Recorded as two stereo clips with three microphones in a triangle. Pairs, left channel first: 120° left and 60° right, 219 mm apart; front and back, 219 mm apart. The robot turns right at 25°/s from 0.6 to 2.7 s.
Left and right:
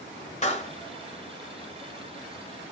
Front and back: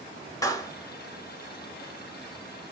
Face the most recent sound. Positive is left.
turn(degrees=125)